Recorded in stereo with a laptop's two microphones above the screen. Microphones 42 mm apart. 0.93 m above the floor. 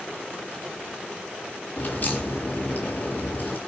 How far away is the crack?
About 7.5 m.